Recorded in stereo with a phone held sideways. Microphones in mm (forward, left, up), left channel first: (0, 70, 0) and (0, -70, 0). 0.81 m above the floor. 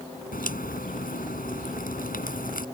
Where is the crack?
85° left.